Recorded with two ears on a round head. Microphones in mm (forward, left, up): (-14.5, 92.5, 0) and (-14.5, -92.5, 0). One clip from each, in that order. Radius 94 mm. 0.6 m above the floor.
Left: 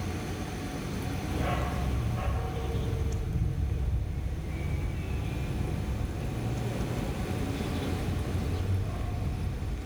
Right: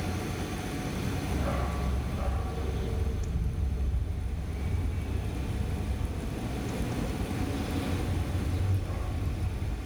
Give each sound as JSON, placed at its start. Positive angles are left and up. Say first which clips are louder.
{"t": 1.3, "sound": "a dog barking", "louder": "left 3 dB", "side_deg": 85, "distance_m": 4.0}